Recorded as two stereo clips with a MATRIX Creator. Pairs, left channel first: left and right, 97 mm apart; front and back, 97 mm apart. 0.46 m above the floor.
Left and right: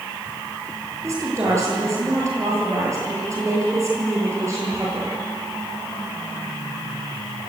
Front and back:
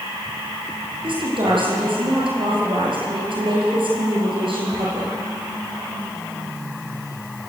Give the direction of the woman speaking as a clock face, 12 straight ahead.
5 o'clock.